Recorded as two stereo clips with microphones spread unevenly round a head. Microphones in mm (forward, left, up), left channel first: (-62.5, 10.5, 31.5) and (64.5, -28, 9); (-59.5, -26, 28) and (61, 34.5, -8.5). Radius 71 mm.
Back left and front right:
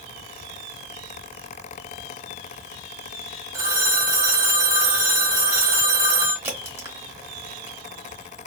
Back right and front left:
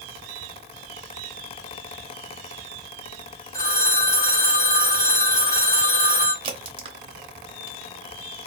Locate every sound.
3.5 s a phone ringing: 85° right, 1.0 m
6.4 s a crack: 60° left, 0.8 m